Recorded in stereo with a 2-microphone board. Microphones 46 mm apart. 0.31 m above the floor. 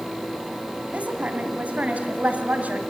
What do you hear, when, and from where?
0.9 s a woman speaking: 35° right (ahead or behind), 2 m